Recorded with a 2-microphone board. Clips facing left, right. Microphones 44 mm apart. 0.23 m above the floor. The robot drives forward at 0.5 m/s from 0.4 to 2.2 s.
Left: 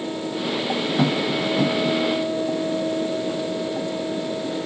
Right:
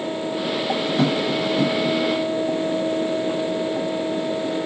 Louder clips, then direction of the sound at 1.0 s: Even; 10° left (ahead or behind).